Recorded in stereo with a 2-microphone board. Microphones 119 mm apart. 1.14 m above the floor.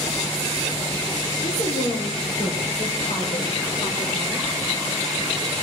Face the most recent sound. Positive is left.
turn(degrees=70)  # may be behind; listen again after turning